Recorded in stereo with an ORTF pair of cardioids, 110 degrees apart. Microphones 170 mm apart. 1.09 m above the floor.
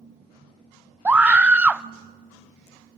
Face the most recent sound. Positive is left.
turn(degrees=-10)